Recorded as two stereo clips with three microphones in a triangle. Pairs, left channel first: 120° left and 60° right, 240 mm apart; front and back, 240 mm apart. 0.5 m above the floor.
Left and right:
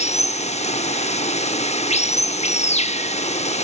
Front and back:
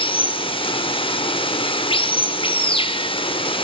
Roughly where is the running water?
Ahead left.